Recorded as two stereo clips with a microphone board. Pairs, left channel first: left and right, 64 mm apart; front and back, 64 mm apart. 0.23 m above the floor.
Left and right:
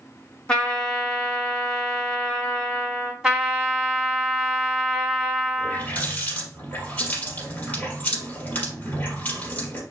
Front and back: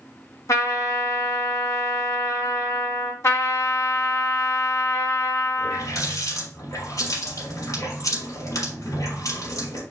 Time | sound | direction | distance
0.5 | a trumpet | 20° left | 2.5 m
3.2 | a trumpet | 15° right | 2.5 m
5.6 | a running tap | 30° left | 4 m